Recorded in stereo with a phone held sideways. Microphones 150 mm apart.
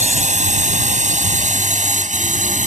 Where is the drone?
55° right (ahead or behind).